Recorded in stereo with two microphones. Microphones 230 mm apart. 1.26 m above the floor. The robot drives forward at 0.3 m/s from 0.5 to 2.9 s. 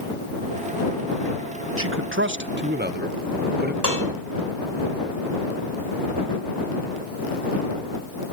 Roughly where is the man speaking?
Right.